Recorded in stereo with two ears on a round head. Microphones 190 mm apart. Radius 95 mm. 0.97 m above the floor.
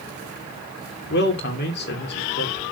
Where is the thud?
I don't hear a thud.